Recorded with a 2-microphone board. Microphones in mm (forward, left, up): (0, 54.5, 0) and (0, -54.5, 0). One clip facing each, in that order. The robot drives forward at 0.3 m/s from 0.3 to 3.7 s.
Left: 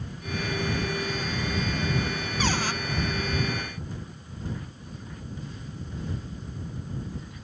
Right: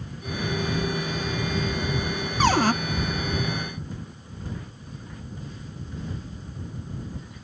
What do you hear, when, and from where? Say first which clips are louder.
2.4 s a cupboard door: right 9 dB; 55° right (ahead or behind); by 2.7 s 50° right (ahead or behind)